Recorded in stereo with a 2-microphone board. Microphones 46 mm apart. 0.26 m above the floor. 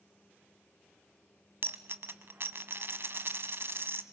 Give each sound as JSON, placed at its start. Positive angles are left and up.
{"t": 1.6, "sound": "a dropped coin", "side_deg": -55, "distance_m": 0.9}